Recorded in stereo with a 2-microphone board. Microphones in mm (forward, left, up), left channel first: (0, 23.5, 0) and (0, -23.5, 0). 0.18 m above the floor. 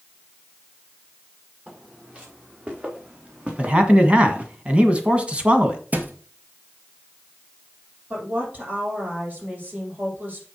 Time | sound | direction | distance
1.7 | footsteps | 25° right (ahead or behind) | 4.5 m
3.6 | a man speaking | 25° right (ahead or behind) | 1.4 m
5.9 | a thud | 35° right (ahead or behind) | 1.6 m
8.1 | a woman speaking | 35° right (ahead or behind) | 6 m